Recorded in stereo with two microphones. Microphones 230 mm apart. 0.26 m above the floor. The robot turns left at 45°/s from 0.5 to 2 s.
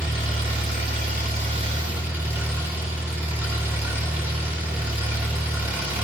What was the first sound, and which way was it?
An engine running, 105° right.